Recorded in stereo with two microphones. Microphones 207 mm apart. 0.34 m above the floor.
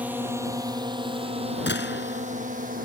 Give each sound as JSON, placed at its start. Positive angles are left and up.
{"t": 0.0, "sound": "a drone", "side_deg": -10}
{"t": 1.7, "sound": "a gunshot", "side_deg": 65}